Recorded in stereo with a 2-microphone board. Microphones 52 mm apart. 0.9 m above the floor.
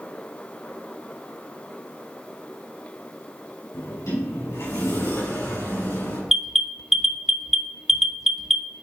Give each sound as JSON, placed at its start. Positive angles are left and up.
{"t": 3.7, "sound": "a sliding door", "side_deg": 85, "distance_m": 4.0}
{"t": 6.3, "sound": "an alarm", "side_deg": -5, "distance_m": 0.6}